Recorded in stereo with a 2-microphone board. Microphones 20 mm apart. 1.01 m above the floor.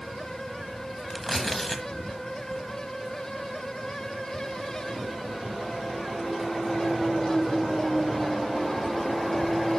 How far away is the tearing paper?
About 1.0 m.